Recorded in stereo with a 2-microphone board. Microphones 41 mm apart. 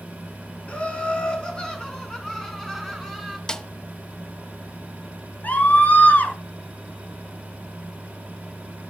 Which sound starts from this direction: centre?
A snare drum, at 3.5 s.